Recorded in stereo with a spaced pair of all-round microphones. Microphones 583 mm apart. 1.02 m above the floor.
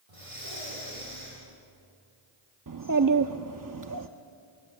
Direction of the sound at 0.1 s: 80° right.